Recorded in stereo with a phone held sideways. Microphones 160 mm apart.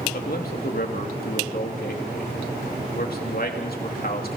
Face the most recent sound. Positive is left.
turn(degrees=65)  # may be behind; listen again after turning